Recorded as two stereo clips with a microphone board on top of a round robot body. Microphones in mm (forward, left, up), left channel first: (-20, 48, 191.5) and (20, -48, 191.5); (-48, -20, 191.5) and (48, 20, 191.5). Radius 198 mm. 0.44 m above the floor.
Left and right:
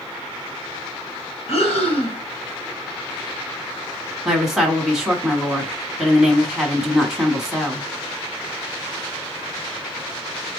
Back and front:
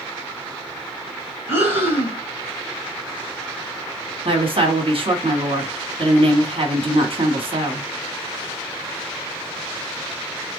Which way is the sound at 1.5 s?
90° left.